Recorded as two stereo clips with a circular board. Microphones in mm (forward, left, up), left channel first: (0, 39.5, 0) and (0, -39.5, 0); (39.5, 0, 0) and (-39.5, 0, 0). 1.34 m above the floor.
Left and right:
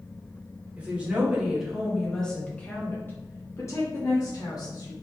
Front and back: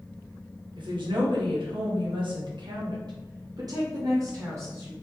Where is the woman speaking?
160° right, 1.6 m; by 4.9 s 125° left, 2.0 m.